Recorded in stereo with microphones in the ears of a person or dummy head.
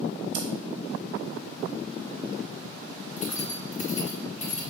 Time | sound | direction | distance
0.3 | scissors | 65° right (ahead or behind) | 0.9 m
3.2 | keys jangling | 40° left (ahead or behind) | 0.5 m